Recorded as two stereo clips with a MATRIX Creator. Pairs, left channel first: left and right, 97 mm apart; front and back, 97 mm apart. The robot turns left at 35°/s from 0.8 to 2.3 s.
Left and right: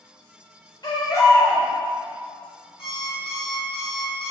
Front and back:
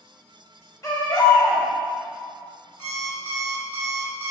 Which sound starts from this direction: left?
An alarm clock, at 2.8 s.